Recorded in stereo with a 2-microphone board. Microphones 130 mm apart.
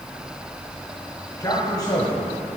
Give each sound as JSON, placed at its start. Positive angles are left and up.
{"t": 1.4, "sound": "a man speaking", "side_deg": 35, "distance_m": 1.4}